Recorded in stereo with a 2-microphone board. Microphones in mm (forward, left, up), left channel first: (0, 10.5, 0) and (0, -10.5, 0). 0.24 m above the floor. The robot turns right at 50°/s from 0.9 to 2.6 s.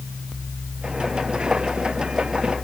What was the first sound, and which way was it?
Only background noise.